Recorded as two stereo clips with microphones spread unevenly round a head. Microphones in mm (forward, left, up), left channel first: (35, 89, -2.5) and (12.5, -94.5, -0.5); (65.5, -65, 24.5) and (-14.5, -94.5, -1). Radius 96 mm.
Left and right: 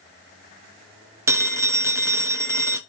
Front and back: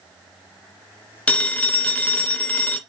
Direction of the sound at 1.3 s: 25° right.